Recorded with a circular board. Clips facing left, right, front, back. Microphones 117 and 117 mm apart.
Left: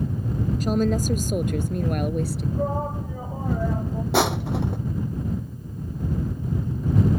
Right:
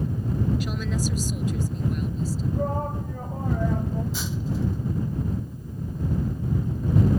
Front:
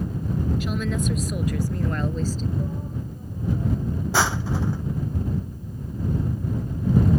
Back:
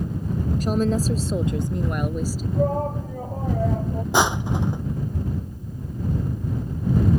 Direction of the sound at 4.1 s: 110° left.